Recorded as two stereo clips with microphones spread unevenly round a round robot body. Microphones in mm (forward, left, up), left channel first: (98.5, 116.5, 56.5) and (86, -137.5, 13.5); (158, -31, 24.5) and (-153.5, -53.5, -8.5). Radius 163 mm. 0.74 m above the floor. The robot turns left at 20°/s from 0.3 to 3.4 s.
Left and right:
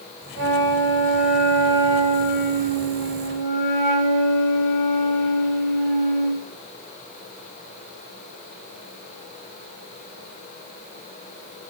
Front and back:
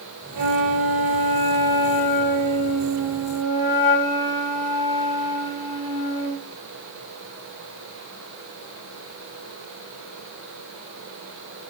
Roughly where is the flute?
Behind right.